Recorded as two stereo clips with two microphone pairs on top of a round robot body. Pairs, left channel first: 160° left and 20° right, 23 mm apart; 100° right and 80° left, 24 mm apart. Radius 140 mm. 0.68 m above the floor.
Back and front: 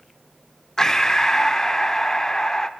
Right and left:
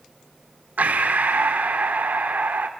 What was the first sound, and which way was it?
Breathing, 85° left.